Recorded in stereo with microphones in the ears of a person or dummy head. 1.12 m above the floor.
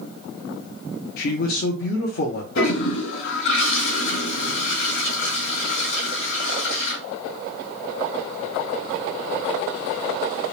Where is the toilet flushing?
60° left (ahead or behind), 0.9 m.